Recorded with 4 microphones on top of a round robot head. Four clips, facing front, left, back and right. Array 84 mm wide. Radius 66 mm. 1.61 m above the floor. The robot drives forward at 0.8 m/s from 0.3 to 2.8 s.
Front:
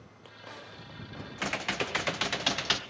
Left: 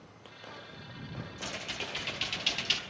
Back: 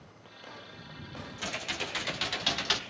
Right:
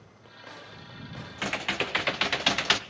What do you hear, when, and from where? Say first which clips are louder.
1.4 s typing on a keyboard: right 11 dB, front 5 dB; 45° right, 1.7 m; by 2.8 s 90° right, 1.2 m